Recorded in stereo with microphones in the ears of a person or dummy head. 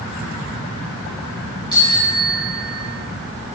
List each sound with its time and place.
1.7 s a bicycle bell: 25° left (ahead or behind), 5 m